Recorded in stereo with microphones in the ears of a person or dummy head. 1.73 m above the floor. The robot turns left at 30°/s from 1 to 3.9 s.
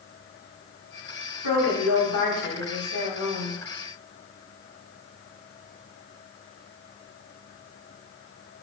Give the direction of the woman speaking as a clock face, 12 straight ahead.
8 o'clock.